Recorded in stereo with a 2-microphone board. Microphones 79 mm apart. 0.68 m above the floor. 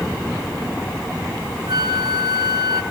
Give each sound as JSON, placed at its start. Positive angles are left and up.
{"t": 1.7, "sound": "a flute", "side_deg": -60, "distance_m": 1.5}